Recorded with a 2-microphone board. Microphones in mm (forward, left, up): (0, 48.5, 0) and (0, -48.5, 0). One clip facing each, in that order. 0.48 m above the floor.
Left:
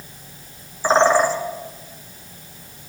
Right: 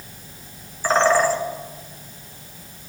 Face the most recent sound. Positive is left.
turn(degrees=20)  # may be behind; listen again after turning